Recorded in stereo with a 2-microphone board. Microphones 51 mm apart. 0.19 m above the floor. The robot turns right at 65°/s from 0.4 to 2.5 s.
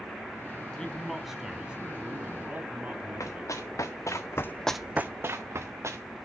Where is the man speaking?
155° left, 1.1 m; by 4.2 s 90° right, 1.1 m.